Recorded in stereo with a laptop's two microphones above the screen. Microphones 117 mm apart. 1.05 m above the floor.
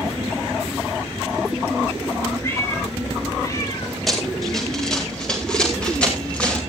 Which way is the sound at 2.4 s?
25° left (ahead or behind).